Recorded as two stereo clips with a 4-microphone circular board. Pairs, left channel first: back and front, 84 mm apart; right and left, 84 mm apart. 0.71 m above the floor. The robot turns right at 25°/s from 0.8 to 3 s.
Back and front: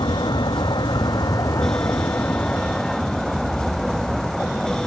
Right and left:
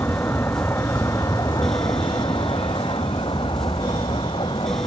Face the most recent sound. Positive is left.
turn(degrees=-95)